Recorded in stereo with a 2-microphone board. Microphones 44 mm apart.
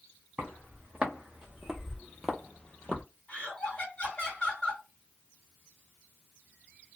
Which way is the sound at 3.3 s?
25° left (ahead or behind).